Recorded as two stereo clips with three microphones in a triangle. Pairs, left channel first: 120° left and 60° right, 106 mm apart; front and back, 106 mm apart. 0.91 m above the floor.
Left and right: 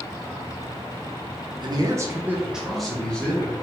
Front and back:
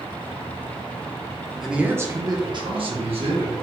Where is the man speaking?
90° right, 0.7 m; by 3.5 s 165° right, 1.4 m.